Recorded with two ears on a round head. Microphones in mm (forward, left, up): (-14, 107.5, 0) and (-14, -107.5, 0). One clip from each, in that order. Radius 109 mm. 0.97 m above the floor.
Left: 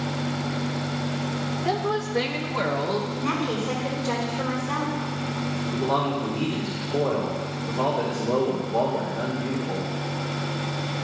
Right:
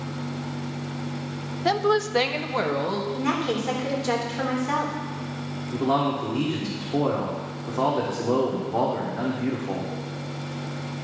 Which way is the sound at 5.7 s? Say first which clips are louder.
Right 2 dB; 85° right.